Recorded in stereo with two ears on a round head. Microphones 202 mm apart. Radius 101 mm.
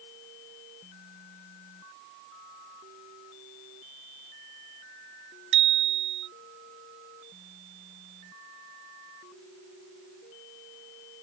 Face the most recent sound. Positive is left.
turn(degrees=-55)  # may be behind; listen again after turning